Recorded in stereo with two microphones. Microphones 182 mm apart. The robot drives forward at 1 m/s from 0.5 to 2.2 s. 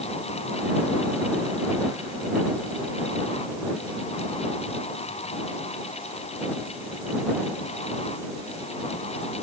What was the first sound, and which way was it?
Only background noise.